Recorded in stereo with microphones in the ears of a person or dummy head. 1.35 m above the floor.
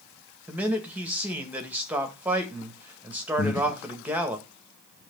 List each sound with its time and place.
0.5 s a man speaking: 5° right (ahead or behind), 1.8 m
3.4 s breathing: 45° left (ahead or behind), 1.1 m